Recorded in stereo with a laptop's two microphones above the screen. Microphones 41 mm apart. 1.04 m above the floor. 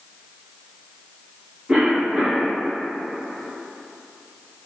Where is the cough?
35° right (ahead or behind), 1.3 m.